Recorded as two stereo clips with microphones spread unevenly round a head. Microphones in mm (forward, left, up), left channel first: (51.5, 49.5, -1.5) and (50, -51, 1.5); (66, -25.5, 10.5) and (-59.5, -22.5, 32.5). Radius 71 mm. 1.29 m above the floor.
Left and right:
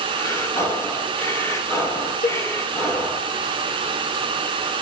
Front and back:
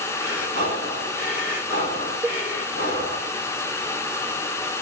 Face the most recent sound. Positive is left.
turn(degrees=115)